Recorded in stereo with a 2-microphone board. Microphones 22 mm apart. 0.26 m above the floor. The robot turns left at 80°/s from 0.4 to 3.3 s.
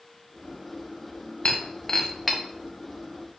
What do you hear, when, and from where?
1.4 s breaking glass: 60° left (ahead or behind), 2 m; by 2.4 s 15° right (ahead or behind), 2 m